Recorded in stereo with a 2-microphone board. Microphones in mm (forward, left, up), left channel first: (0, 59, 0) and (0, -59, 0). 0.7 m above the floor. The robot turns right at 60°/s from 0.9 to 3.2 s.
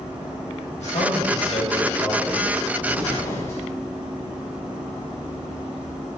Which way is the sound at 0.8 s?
75° left.